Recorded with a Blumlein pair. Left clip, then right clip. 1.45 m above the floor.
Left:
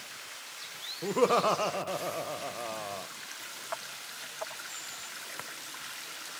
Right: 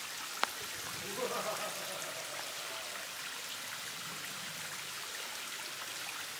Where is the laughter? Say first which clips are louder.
Left 13 dB; 55° left, 0.7 m.